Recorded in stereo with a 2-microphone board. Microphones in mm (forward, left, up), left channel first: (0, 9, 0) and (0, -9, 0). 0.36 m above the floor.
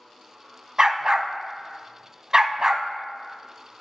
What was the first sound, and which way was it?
A dog barking, 35° right (ahead or behind).